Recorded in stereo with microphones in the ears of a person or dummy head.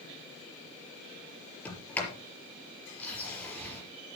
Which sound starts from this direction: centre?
A sliding door, at 1.6 s.